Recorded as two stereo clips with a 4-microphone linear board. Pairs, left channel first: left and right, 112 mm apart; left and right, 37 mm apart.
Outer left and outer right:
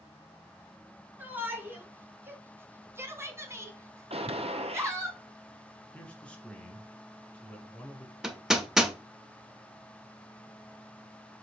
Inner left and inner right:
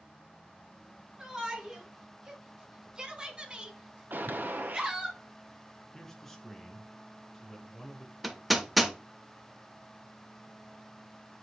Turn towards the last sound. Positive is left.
turn(degrees=-5)  # may be behind; listen again after turning